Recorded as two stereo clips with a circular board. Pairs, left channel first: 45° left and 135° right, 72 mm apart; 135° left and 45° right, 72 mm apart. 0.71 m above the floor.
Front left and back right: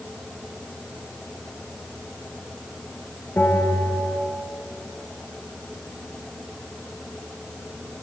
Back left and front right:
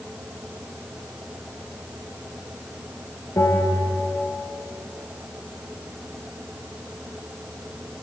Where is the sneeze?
No sneeze in this recording.